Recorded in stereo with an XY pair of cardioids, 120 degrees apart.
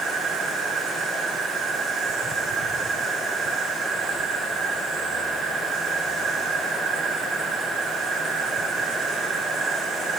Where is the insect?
70° right, 4 m.